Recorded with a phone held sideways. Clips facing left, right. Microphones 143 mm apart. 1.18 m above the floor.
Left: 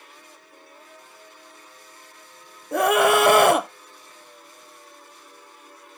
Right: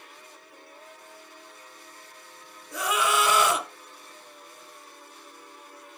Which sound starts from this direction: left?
A scream, at 2.7 s.